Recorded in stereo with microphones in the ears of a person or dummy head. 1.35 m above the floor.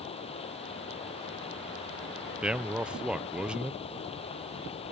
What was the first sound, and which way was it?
Running water, 30° left (ahead or behind).